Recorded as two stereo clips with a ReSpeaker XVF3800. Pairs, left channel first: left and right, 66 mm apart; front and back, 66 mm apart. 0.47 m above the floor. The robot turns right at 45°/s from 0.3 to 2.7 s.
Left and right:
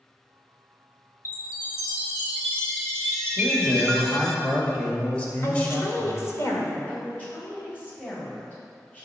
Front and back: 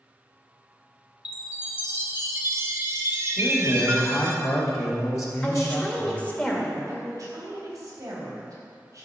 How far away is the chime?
About 1.2 m.